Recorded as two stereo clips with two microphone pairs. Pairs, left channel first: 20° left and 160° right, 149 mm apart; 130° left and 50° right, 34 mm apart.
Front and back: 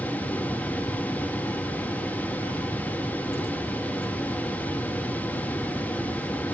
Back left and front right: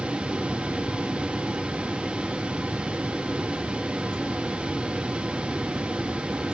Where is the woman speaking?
No woman speaking in this recording.